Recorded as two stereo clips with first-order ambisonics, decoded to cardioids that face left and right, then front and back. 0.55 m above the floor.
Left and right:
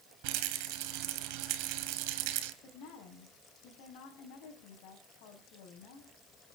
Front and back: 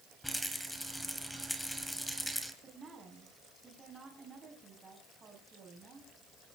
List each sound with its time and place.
0.2 s a rattle: 90° right, 3 m
2.6 s a woman speaking: 110° left, 5 m